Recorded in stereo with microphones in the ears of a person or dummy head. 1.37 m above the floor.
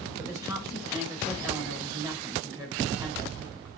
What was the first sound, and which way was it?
A woman speaking, 20° right (ahead or behind).